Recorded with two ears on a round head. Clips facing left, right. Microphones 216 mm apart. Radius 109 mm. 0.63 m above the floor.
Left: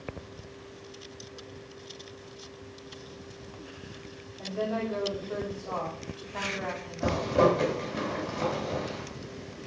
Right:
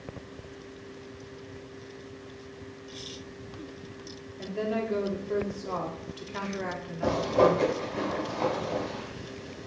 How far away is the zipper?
About 3 m.